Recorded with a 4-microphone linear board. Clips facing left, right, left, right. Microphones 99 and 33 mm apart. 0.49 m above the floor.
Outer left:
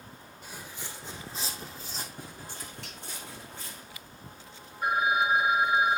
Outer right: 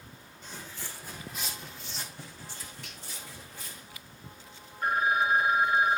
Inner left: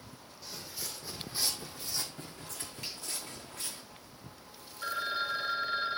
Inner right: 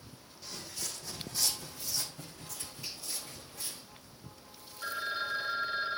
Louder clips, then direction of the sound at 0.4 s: Even, inner right 1 dB; 10° left (ahead or behind).